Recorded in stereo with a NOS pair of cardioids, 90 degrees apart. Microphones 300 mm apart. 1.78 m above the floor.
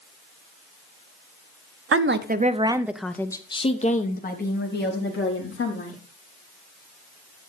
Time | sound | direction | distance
1.9 | a woman speaking | 50° right | 1.0 m